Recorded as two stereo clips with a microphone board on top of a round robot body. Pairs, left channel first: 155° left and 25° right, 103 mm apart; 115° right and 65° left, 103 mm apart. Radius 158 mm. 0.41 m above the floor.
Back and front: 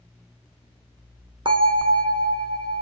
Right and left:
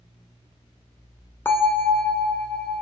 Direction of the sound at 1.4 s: 45° right.